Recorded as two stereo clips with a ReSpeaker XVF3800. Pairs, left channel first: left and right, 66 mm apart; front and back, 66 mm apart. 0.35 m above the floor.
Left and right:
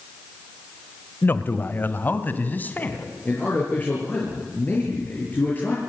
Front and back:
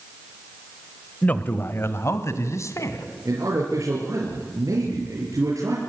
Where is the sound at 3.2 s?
150° left, 5.5 m.